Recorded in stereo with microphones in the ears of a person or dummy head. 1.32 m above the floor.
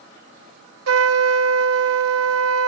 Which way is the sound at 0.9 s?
75° right (ahead or behind).